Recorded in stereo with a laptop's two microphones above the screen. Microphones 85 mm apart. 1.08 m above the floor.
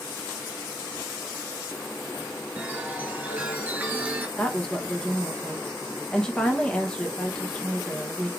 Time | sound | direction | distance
2.6 | a chime | 20° right (ahead or behind) | 2.5 m
4.4 | a woman speaking | 10° left (ahead or behind) | 1.3 m